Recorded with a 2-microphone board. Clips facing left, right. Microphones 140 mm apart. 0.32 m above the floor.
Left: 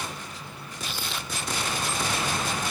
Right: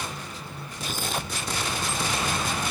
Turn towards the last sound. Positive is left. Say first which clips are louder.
# right 5 dB
turn(degrees=-50)  # may be behind; listen again after turning